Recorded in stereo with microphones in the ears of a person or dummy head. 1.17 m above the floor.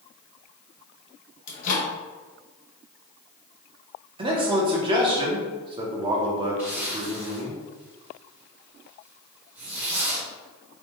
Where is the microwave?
45° left (ahead or behind), 0.9 m.